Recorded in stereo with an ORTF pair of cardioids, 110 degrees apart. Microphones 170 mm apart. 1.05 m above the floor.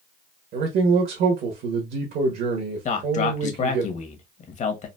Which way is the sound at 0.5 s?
65° right.